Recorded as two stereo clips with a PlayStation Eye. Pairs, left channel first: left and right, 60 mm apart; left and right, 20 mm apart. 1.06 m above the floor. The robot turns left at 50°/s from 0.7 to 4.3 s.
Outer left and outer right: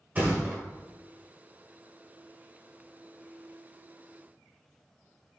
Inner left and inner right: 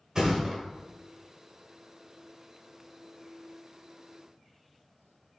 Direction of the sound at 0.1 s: 30° right (ahead or behind).